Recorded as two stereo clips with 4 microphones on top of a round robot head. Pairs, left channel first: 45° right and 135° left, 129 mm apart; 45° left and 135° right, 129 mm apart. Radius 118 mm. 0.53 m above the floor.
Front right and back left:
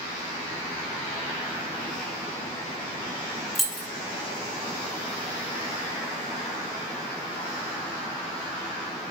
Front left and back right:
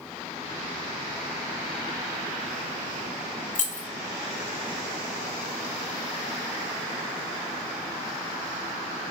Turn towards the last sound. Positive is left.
turn(degrees=45)